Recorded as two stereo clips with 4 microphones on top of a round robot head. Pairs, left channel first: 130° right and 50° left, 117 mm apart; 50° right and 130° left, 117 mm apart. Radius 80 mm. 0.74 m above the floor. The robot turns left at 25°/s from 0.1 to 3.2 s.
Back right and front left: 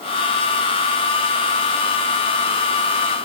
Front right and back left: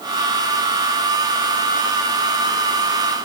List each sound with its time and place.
Only background noise.